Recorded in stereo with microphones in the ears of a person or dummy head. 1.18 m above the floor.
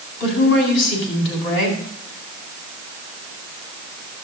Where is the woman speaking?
70° left (ahead or behind), 8.5 m.